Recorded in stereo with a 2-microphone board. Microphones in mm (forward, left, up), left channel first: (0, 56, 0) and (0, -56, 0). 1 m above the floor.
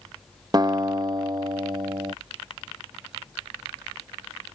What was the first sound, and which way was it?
A guitar, 35° right (ahead or behind).